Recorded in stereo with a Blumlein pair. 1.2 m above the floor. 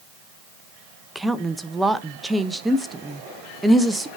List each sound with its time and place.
1.1 s a woman speaking: 5° right, 0.7 m